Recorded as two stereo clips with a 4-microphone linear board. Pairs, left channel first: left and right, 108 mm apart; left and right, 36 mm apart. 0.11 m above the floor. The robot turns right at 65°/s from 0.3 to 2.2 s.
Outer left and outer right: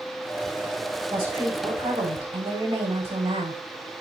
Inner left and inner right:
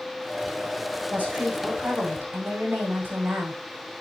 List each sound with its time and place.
1.1 s a woman speaking: 150° right, 5.5 m; by 3.6 s 75° right, 5.5 m